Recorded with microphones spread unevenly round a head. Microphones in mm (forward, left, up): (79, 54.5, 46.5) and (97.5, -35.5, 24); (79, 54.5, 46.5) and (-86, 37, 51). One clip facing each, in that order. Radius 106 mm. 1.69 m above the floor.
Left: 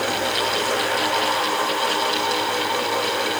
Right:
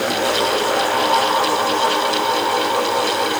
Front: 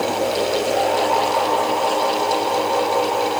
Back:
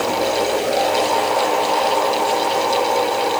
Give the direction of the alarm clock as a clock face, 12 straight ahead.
No alarm clock in this recording.